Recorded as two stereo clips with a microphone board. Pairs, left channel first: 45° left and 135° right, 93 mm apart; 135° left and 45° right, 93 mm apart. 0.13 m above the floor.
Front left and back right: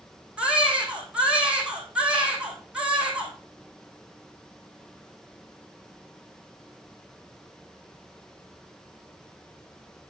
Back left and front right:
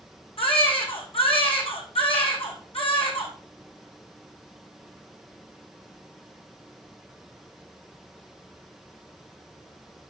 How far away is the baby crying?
About 2.5 m.